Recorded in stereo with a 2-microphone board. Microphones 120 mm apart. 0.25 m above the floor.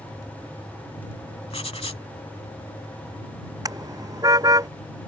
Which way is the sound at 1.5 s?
60° left (ahead or behind).